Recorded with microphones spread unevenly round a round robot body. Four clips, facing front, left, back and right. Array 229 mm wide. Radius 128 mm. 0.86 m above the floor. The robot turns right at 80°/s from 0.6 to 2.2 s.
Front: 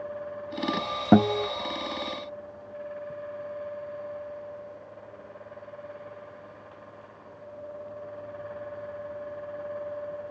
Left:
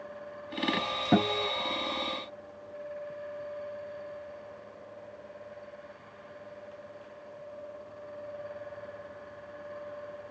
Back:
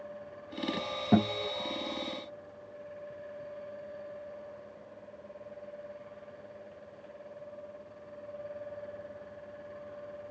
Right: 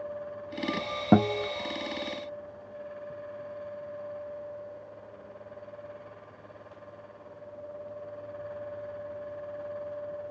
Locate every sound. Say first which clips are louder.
1.1 s a guitar: right 4 dB, front 7 dB; 15° right, 1.1 m; by 1.5 s 15° left, 1.1 m